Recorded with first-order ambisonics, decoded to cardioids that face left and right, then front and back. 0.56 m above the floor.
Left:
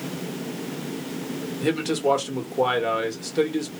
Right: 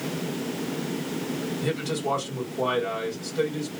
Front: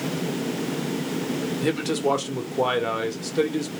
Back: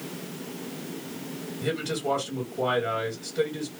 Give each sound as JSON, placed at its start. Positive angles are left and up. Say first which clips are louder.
{"t": 1.6, "sound": "a man speaking", "louder": "left 7 dB, front 4 dB", "azimuth_deg": 40, "distance_m": 1.0}